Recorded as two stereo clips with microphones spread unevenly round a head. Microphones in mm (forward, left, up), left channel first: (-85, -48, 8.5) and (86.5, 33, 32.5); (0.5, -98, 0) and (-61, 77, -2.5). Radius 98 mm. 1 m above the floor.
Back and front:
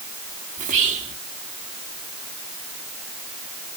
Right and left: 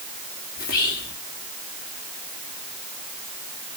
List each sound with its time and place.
0.6 s whispering: 25° right, 2.5 m